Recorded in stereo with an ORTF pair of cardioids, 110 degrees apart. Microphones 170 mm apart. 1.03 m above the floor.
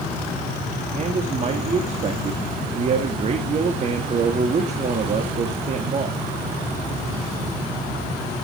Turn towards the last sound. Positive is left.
turn(degrees=-40)